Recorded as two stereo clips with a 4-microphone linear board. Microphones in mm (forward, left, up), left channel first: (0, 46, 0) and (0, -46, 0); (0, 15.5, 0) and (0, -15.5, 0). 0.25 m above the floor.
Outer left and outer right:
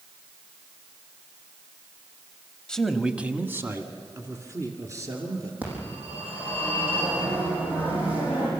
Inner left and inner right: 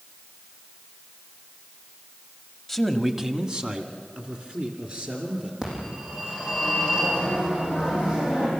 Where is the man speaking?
10° left (ahead or behind), 0.9 m; by 5.5 s 35° right (ahead or behind), 4 m.